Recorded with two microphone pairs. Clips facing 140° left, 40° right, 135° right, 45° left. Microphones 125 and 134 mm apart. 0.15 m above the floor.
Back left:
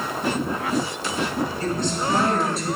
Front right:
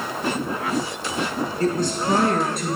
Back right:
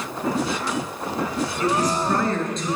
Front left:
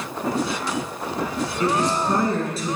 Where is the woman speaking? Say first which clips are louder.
Front right 3 dB, front left 1 dB; 10° right, 3.5 m; by 2.8 s 45° right, 3 m.